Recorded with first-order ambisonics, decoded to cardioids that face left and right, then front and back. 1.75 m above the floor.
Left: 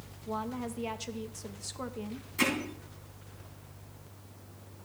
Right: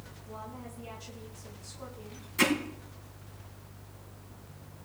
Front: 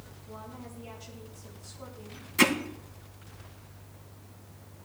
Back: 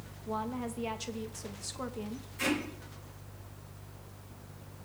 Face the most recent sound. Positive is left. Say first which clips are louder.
# right 3 dB, front 8 dB
turn(degrees=-10)